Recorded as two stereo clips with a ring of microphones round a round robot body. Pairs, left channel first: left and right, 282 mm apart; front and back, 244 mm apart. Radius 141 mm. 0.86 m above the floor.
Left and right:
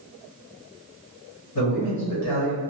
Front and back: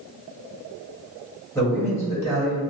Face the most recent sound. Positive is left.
turn(degrees=80)